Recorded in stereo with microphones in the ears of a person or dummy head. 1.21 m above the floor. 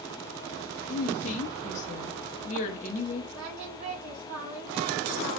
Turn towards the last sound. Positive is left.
turn(degrees=-80)